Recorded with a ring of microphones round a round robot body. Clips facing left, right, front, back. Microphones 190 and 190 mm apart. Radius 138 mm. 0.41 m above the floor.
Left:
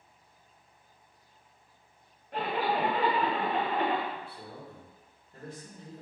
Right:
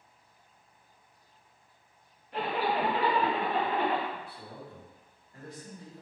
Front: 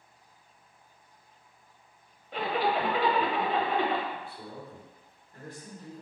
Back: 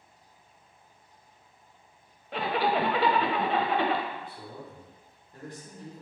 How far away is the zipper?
About 0.5 m.